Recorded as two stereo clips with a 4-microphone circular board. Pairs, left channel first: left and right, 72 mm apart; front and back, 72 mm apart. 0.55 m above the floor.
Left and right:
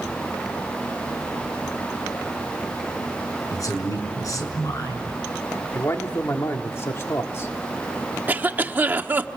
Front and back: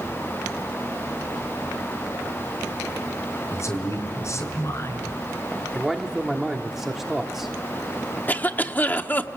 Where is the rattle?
No rattle in this recording.